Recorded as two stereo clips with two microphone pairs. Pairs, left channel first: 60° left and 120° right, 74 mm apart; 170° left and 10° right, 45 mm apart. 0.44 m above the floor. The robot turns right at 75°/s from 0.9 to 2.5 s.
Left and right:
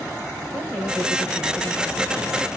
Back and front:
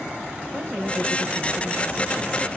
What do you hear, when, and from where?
0.5 s a woman speaking: 55° right, 2.0 m; by 2.5 s 65° left, 2.0 m